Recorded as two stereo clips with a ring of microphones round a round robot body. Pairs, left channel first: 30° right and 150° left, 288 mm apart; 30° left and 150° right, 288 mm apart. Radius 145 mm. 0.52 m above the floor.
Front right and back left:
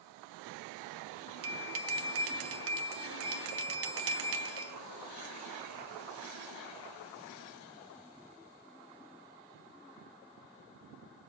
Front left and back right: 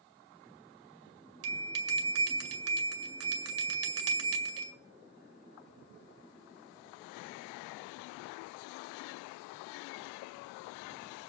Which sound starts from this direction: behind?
A bell, at 1.4 s.